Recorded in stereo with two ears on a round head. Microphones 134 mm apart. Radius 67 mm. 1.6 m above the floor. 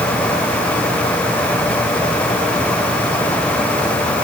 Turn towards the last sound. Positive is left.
No sound to turn to.